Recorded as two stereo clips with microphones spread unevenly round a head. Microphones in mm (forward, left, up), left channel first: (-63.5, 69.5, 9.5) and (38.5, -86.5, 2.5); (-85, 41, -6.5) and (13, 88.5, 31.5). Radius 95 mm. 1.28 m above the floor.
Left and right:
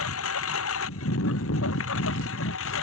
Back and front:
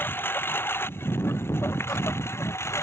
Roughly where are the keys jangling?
I don't hear keys jangling.